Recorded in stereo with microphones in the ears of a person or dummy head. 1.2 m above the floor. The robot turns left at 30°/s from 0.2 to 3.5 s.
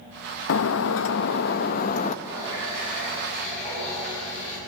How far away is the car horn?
No car horn in this recording.